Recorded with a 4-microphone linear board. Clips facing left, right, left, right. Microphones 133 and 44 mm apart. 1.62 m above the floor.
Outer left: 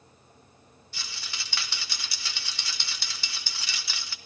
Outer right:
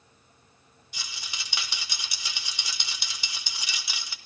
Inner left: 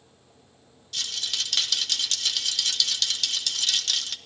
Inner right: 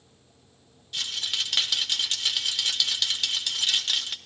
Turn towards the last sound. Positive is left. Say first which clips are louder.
# even, inner right 1 dB
turn(degrees=-15)  # may be behind; listen again after turning